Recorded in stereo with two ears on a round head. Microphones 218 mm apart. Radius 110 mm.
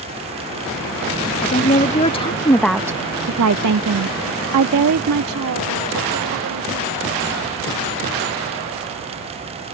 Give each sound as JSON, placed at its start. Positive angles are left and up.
{"t": 1.4, "sound": "a woman speaking", "side_deg": 30}